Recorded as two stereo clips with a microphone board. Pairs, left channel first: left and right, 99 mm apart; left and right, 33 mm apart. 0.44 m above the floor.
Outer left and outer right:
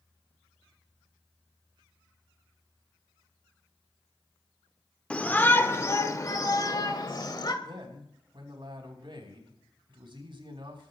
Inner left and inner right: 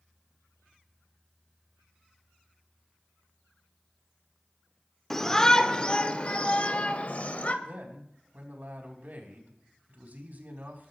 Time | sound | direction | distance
5.1 | a shout | 10° left (ahead or behind) | 1.0 m
7.6 | a man speaking | 60° right (ahead or behind) | 4 m